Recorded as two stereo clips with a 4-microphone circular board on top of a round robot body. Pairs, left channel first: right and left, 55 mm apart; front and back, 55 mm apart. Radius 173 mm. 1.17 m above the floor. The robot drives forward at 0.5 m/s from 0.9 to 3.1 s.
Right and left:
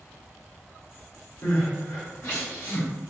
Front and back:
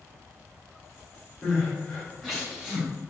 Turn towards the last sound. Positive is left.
turn(degrees=-100)